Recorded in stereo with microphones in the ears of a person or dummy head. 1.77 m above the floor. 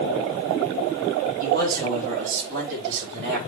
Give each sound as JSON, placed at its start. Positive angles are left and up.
{"t": 1.4, "sound": "a man speaking", "side_deg": -40, "distance_m": 5.5}